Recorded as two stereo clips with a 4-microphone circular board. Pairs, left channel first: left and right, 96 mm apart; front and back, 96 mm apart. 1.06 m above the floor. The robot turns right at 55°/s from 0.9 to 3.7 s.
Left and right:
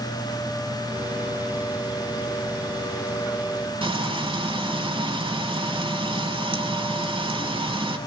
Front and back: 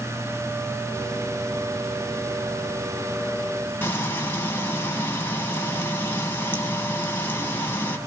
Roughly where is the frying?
Right.